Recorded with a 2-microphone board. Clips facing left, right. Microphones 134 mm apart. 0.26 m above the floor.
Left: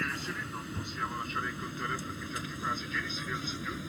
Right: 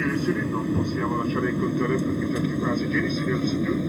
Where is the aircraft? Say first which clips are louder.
Right 15 dB; 55° right (ahead or behind).